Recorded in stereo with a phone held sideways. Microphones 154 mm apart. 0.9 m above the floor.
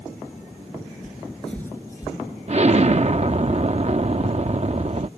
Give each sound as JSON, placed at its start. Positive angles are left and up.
{"t": 1.0, "sound": "footsteps", "side_deg": -5}
{"t": 2.5, "sound": "an explosion", "side_deg": -45}